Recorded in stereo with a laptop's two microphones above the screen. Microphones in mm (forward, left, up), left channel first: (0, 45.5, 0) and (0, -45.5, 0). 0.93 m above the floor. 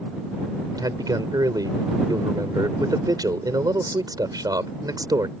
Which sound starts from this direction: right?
A man speaking, at 0.8 s.